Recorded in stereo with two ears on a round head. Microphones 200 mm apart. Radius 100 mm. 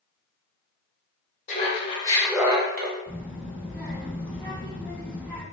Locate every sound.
1.5 s laughter: 35° left (ahead or behind), 1.1 m; by 3.0 s 55° right (ahead or behind), 0.6 m
3.1 s a child speaking: 10° left (ahead or behind), 1.6 m